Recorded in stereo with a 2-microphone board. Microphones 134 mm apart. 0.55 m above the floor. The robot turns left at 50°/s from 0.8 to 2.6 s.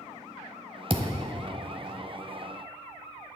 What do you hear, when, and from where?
0.9 s a thud: 45° right (ahead or behind), 1.0 m; by 1.4 s 20° right (ahead or behind), 1.0 m